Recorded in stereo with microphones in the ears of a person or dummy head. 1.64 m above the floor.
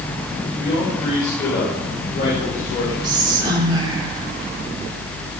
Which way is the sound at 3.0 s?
25° right (ahead or behind).